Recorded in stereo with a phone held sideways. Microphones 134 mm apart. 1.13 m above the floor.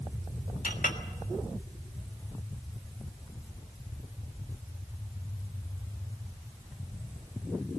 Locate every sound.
0.6 s a clink: 85° left, 1.5 m